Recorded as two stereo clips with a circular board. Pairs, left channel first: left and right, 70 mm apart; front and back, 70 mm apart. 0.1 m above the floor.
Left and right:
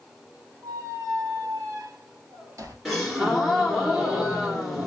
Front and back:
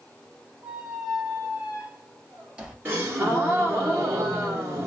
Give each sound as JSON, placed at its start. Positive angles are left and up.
{"t": 0.6, "sound": "a squeak", "azimuth_deg": -105, "distance_m": 1.7}
{"t": 2.9, "sound": "a gasp", "azimuth_deg": 180, "distance_m": 1.6}